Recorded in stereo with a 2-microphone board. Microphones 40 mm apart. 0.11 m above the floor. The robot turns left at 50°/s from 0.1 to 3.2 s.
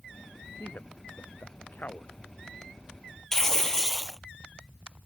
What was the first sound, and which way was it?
A man speaking, 60° left (ahead or behind).